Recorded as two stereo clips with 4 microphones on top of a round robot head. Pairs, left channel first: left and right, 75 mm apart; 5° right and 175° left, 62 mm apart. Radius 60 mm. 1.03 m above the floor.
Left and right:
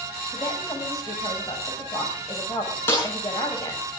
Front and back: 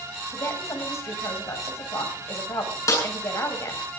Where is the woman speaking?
35° left, 7 m.